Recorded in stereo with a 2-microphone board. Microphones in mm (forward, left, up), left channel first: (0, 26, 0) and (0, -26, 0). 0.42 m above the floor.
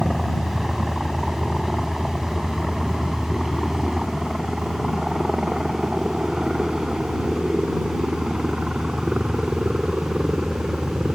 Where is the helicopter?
Centre (ahead or behind); by 11.2 s 20° right (ahead or behind).